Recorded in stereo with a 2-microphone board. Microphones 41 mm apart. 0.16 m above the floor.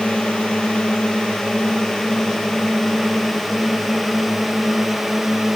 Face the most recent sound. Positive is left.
turn(degrees=-5)  # may be behind; listen again after turning